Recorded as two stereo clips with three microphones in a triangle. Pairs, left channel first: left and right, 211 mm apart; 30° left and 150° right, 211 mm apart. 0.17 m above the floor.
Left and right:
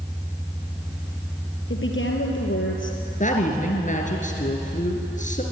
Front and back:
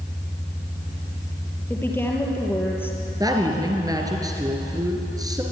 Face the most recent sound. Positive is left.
turn(degrees=140)